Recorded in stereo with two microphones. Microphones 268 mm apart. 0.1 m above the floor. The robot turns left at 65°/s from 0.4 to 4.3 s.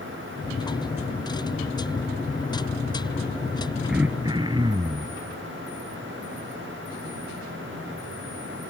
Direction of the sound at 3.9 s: Centre (ahead or behind).